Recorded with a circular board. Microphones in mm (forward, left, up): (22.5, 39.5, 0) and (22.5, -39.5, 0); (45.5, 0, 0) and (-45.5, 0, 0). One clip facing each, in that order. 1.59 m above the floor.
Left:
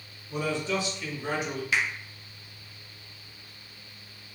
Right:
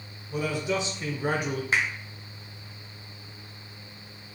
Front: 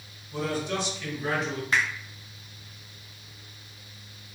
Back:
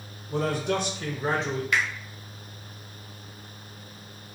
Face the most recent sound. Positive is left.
turn(degrees=-45)